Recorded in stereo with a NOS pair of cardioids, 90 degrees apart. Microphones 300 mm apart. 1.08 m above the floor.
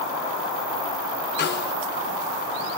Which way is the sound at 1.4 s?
35° left.